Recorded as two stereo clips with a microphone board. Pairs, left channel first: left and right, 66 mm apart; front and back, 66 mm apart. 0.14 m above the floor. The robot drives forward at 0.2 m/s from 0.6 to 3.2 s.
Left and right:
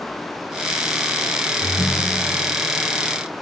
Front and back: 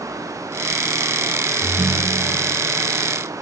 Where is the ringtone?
175° right, 1.0 m.